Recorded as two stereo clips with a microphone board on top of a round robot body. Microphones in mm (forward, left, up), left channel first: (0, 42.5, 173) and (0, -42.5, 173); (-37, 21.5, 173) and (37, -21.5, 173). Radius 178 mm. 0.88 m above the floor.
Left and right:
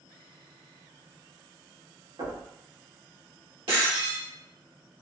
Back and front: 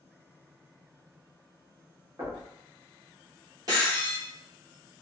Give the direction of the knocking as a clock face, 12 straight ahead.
3 o'clock.